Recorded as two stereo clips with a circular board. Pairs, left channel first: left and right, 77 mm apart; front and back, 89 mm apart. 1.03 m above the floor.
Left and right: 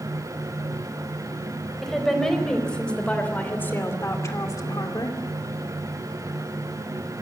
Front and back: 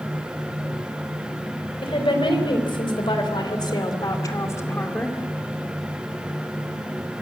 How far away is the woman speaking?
About 4 m.